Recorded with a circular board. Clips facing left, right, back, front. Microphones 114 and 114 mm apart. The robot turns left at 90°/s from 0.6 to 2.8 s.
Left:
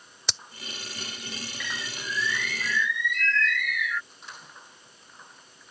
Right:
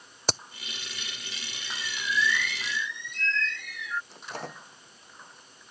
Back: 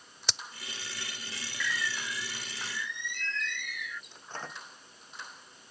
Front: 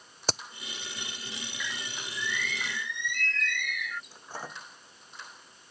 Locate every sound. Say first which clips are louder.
0.3 s a crack: right 9 dB, front 8 dB; 45° right
1.6 s a bird: right 2 dB, back 6 dB; 75° left; by 4.0 s 30° right
4.1 s a microwave: right 8 dB, front 1 dB; 80° right